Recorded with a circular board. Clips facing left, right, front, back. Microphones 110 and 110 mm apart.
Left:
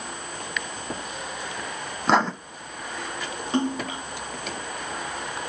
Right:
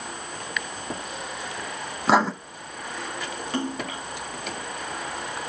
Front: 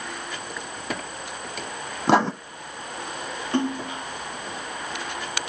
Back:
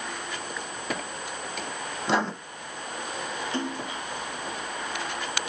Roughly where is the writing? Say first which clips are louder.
Right 1 dB, front 7 dB; ahead.